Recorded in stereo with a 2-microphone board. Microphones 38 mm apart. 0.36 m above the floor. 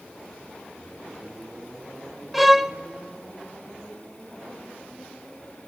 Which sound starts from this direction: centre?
A violin, at 2.3 s.